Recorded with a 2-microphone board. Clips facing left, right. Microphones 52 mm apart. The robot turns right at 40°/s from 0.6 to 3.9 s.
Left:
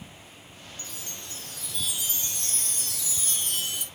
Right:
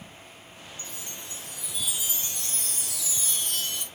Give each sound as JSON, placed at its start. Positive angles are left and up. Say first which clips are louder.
{"t": 0.8, "sound": "a chime", "louder": "even", "side_deg": -20, "distance_m": 1.4}